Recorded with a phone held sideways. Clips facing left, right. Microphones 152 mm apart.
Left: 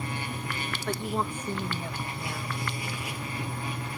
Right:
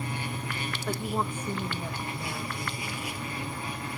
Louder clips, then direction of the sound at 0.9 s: Even; 5° right (ahead or behind).